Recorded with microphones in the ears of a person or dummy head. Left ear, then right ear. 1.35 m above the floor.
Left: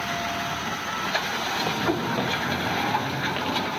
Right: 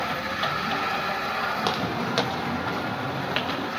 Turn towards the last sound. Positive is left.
turn(degrees=-75)  # may be behind; listen again after turning